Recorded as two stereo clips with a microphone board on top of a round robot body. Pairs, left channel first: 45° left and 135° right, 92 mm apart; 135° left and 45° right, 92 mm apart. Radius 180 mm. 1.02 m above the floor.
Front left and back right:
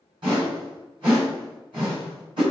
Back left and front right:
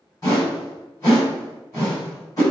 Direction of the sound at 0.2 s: 170° right.